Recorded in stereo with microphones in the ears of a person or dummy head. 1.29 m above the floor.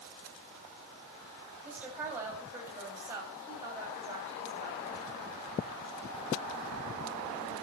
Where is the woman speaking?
10° right (ahead or behind), 7.5 m; by 4.8 s 25° right (ahead or behind), 8 m.